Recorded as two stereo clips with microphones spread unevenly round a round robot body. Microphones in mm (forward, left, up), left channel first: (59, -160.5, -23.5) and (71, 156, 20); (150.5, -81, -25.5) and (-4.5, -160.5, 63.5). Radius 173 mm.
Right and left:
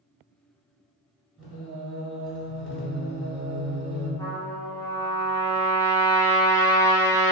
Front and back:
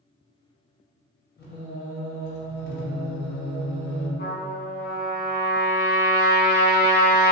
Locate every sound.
1.4 s singing: straight ahead, 1.7 m
4.2 s a trumpet: 10° right, 1.0 m